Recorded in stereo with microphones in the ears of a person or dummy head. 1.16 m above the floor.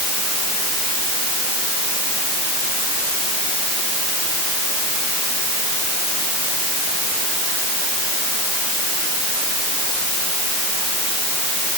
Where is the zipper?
I don't hear a zipper.